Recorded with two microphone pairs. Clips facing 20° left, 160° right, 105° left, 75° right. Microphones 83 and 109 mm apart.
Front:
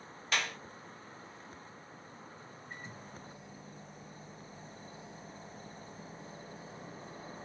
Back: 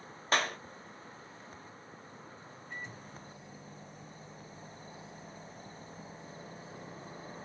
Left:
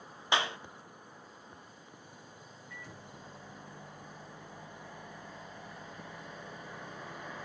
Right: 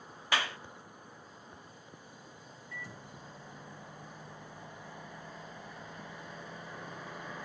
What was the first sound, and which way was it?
A clap, 160° left.